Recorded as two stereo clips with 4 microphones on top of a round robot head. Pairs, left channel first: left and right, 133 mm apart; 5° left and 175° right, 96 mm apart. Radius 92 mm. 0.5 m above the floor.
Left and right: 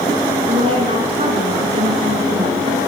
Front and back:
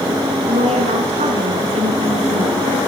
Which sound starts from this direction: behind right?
A woman speaking, at 0.5 s.